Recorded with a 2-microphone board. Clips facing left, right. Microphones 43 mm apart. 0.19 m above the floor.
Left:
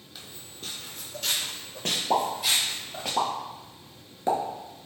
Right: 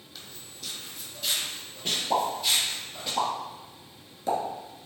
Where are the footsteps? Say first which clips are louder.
Left 1 dB; 5° left (ahead or behind), 0.5 m; by 3.1 s 85° left, 1.5 m.